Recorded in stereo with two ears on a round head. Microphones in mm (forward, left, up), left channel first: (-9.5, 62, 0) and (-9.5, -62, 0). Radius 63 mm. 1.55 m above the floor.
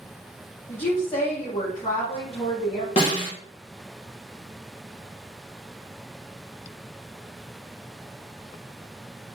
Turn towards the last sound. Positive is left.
turn(degrees=45)  # may be behind; listen again after turning